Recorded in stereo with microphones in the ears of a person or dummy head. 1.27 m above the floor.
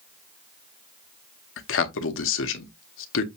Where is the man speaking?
60° left (ahead or behind), 0.9 m.